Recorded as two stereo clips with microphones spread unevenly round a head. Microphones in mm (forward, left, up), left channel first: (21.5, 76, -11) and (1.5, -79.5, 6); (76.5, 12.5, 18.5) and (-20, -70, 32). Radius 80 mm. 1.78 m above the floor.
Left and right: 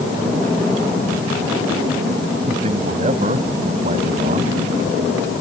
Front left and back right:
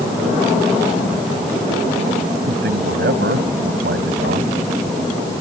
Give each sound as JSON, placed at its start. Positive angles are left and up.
{"t": 2.5, "sound": "a man speaking", "azimuth_deg": -150}